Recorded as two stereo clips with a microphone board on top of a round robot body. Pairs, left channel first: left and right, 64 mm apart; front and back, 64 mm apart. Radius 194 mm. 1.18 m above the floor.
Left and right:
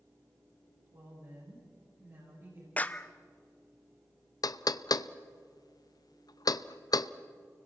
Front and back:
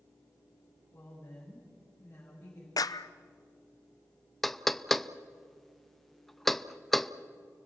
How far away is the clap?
About 0.6 m.